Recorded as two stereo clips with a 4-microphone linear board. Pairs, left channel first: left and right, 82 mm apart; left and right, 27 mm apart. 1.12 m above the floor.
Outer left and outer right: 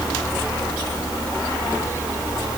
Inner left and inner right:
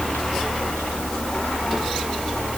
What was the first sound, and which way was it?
Only background noise.